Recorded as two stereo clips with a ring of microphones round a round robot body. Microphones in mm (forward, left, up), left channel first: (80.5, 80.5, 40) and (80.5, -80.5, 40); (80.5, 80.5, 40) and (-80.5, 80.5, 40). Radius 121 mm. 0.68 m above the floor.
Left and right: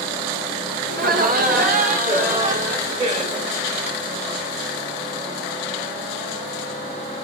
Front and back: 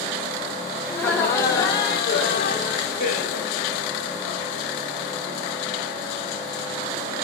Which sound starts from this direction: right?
Laughter, at 0.9 s.